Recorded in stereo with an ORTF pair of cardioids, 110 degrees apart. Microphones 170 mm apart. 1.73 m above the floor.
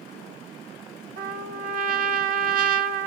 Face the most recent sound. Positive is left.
turn(degrees=-55)